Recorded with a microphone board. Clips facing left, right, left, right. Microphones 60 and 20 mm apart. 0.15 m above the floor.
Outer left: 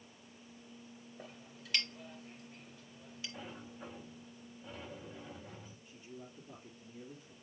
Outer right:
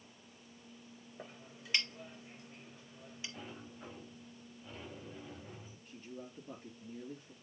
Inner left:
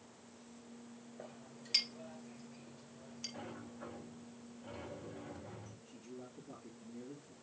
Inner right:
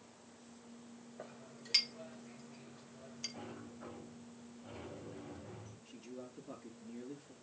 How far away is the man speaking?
About 2.5 m.